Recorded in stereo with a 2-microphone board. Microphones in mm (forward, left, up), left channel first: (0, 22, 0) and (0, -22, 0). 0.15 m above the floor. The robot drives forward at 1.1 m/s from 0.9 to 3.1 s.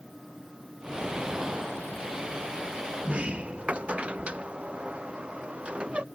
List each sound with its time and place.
3.0 s a sliding door: 25° right (ahead or behind)